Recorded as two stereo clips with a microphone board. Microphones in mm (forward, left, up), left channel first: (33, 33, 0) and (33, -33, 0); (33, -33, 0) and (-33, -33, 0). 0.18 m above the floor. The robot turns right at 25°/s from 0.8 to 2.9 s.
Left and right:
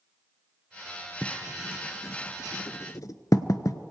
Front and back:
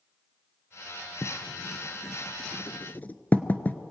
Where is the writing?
20° left, 0.6 m; by 3.8 s 60° left, 0.6 m.